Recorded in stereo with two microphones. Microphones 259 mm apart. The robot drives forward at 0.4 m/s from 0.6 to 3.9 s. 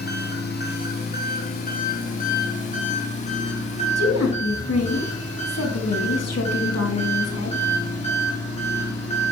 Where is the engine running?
40° left (ahead or behind), 2.5 m; by 9.3 s 25° left (ahead or behind), 3.5 m.